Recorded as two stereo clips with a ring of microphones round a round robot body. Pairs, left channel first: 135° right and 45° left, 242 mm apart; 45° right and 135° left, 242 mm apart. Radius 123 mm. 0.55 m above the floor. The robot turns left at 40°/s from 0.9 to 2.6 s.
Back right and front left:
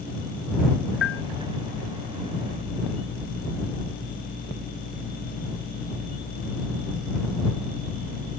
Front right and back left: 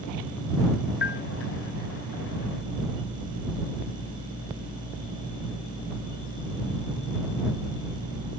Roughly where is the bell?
Right.